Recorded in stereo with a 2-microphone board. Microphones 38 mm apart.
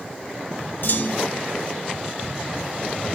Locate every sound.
0.8 s a clunk: 60° left (ahead or behind), 1.2 m